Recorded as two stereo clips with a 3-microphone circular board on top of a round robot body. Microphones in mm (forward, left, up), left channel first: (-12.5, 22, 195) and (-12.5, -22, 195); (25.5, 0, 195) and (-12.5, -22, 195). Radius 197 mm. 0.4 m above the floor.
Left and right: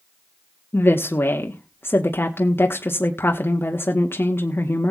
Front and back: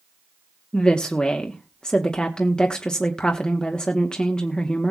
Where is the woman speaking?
100° left, 1.5 m.